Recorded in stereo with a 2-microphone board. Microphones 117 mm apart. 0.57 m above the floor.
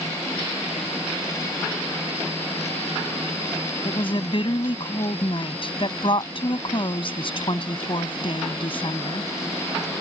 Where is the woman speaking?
50° left (ahead or behind).